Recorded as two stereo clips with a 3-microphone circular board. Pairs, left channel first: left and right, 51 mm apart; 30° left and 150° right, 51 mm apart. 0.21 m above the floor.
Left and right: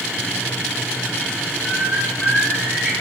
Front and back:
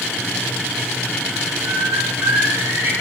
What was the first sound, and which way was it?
A bird, 165° left.